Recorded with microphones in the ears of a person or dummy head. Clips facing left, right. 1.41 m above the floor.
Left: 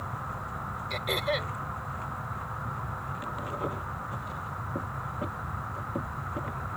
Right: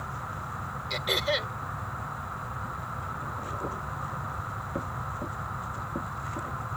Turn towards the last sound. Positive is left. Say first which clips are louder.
# right 1 dB
turn(degrees=-5)  # may be behind; listen again after turning